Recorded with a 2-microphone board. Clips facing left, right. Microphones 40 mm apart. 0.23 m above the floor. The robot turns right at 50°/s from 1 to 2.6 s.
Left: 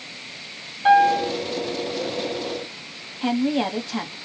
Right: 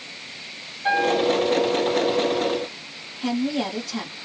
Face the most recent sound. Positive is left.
turn(degrees=30)  # may be behind; listen again after turning